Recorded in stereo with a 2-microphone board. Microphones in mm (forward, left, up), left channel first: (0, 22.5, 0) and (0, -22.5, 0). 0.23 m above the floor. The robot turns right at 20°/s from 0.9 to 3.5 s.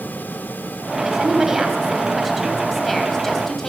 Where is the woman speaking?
15° right (ahead or behind), 1.4 m; by 3.7 s 5° left (ahead or behind), 1.4 m.